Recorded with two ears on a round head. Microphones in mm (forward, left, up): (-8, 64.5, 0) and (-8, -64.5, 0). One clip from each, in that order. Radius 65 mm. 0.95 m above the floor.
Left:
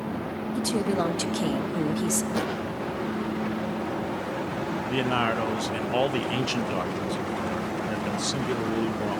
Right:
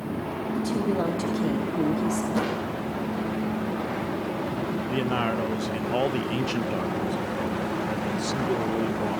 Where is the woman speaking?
55° left (ahead or behind), 1.6 m.